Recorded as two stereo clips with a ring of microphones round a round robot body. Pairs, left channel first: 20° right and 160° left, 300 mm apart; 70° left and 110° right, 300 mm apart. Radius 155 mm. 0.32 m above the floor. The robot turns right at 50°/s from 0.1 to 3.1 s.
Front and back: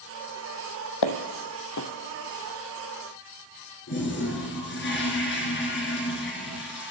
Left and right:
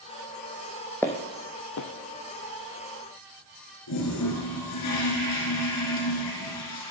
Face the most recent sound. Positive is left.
turn(degrees=30)